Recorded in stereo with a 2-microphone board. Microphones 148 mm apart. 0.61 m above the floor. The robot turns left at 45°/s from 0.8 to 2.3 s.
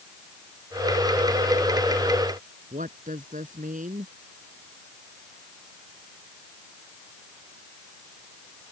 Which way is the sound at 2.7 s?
65° right (ahead or behind).